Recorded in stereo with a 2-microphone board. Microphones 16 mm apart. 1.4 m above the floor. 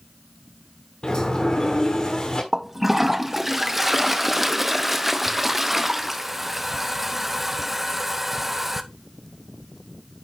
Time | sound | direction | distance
1.0 | a sliding door | 55° left (ahead or behind) | 1.5 m
2.5 | a toilet flushing | 10° right (ahead or behind) | 0.7 m